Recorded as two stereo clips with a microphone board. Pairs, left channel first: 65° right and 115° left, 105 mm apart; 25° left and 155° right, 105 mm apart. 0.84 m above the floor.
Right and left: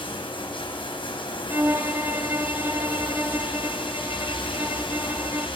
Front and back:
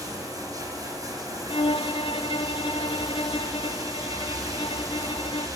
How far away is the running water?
About 4 m.